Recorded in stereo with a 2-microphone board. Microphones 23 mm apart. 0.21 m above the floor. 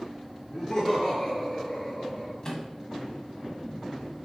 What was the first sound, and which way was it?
Laughter, 10° left (ahead or behind).